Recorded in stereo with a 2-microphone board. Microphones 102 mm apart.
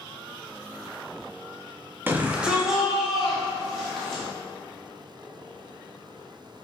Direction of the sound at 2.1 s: 20° right (ahead or behind).